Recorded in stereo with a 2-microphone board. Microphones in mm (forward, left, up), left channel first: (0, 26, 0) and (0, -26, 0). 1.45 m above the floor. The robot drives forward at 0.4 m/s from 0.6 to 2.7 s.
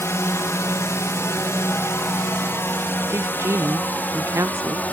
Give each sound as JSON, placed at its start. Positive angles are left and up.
{"t": 0.0, "sound": "a drone", "side_deg": 60}
{"t": 3.1, "sound": "a woman speaking", "side_deg": -60}